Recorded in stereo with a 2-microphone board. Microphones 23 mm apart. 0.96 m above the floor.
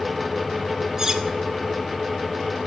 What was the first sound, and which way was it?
Cutlery clinking, 30° right (ahead or behind).